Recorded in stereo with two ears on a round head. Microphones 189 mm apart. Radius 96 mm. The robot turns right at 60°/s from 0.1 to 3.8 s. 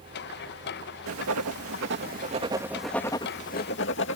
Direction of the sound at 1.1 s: 70° right (ahead or behind).